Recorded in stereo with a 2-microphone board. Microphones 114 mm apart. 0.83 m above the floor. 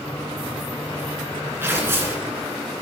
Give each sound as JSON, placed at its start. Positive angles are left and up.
{"t": 1.6, "sound": "tearing paper", "side_deg": -20, "distance_m": 2.0}